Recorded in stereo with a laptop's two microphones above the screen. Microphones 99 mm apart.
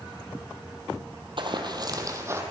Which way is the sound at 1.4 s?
55° right (ahead or behind).